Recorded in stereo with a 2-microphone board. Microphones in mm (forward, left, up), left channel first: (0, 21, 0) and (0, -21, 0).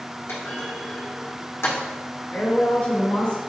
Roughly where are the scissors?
I don't hear scissors.